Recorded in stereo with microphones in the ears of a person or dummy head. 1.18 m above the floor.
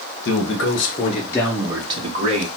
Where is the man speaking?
55° left (ahead or behind), 1.2 m; by 2.5 s 35° right (ahead or behind), 1.0 m.